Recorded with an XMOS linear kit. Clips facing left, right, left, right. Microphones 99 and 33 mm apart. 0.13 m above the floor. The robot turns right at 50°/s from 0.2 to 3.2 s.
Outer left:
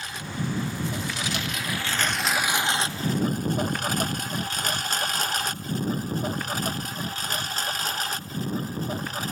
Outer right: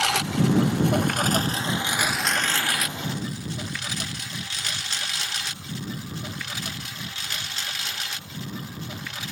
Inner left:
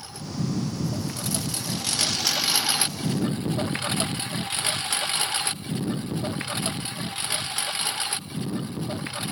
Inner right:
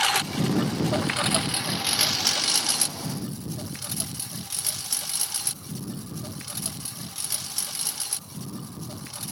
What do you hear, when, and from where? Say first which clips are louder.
0.0 s a lawn mower: outer right 9 dB, inner right 9 dB; 85° right; by 9.3 s 40° left (ahead or behind)